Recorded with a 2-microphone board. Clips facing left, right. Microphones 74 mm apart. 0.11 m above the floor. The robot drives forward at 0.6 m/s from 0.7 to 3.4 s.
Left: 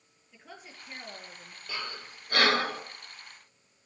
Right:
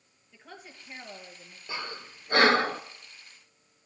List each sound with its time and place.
0.3 s a woman speaking: centre (ahead or behind), 2 m
1.7 s breathing: 20° right (ahead or behind), 0.9 m; by 2.8 s 35° right (ahead or behind), 0.6 m